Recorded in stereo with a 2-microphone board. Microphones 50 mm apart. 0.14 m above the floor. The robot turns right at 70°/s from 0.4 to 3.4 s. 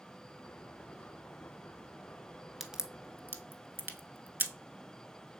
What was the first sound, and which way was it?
A crack, 5° right (ahead or behind).